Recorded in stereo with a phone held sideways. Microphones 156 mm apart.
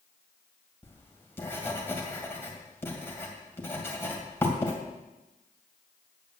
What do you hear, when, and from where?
0.8 s writing: 15° left (ahead or behind), 2.5 m